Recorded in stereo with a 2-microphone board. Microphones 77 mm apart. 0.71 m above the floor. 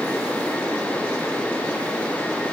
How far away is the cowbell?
No cowbell in this recording.